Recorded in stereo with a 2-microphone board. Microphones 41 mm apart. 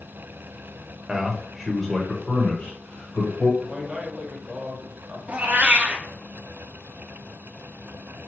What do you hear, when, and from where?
1.1 s a man speaking: 15° right (ahead or behind), 0.9 m; by 3.5 s 40° left (ahead or behind), 1.2 m
3.6 s a man speaking: 20° right (ahead or behind), 0.9 m
5.3 s a cat meowing: 35° right (ahead or behind), 0.6 m